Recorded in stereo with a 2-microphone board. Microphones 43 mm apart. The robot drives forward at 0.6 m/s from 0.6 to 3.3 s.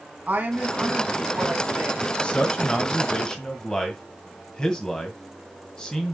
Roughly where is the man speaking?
Left.